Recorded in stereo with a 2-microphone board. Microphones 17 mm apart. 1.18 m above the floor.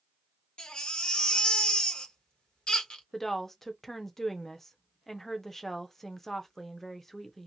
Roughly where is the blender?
No blender in this recording.